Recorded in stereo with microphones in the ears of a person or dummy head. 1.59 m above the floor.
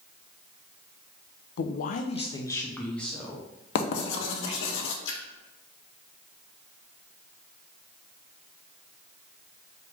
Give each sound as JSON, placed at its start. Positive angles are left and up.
{"t": 1.6, "sound": "a man speaking", "side_deg": 55, "distance_m": 0.5}
{"t": 3.8, "sound": "writing", "side_deg": 65, "distance_m": 0.8}
{"t": 5.0, "sound": "a splash", "side_deg": 65, "distance_m": 1.1}